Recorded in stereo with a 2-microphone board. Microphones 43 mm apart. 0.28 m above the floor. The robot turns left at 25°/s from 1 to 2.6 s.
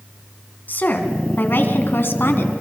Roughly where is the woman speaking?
Behind left.